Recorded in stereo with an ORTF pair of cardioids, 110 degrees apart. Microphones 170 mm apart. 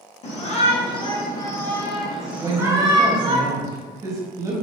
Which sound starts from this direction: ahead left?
A shout, at 0.2 s.